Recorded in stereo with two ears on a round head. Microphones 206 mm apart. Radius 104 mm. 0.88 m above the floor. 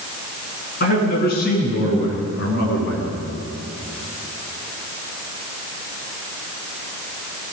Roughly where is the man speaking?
Left.